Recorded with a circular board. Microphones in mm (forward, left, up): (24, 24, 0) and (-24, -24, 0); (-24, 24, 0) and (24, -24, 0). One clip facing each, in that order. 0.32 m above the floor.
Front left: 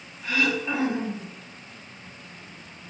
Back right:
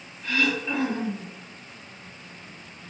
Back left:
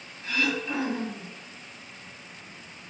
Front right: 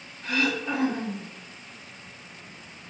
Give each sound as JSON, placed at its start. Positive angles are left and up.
{"t": 0.2, "sound": "throat clearing", "azimuth_deg": -30, "distance_m": 0.9}